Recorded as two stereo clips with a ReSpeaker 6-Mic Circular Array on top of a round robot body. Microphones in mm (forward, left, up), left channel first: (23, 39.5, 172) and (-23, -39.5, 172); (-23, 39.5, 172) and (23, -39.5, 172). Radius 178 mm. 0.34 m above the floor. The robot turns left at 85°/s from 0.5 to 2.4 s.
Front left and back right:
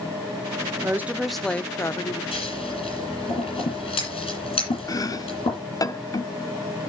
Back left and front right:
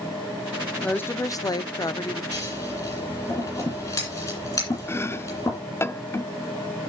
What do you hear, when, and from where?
0.8 s a woman speaking: 170° right, 1.1 m; by 2.2 s 75° left, 1.1 m
2.3 s scissors: 75° left, 9 m; by 5.6 s 65° left, 9 m
4.9 s chopping: 75° left, 1.0 m